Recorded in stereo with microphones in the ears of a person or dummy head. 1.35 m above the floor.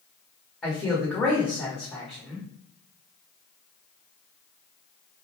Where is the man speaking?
5° left (ahead or behind), 1.1 m.